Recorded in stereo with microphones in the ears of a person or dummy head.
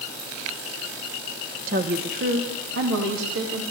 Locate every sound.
1.7 s a woman speaking: 50° right (ahead or behind), 1.5 m; by 3.6 s 80° right, 3 m